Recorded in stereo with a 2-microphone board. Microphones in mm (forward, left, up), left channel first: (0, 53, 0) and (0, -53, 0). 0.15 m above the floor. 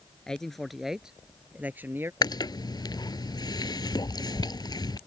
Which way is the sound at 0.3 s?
5° left (ahead or behind).